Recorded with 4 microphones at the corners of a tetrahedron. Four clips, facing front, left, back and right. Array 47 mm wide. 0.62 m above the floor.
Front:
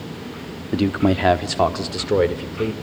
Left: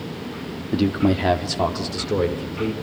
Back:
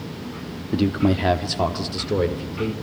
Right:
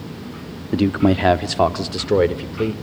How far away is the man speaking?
About 1.1 m.